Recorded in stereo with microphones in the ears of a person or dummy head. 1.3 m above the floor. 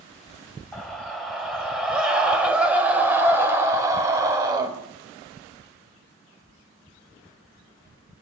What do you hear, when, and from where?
0.7 s a scream: 5° left (ahead or behind), 7 m; by 4.7 s 20° right (ahead or behind), 5.5 m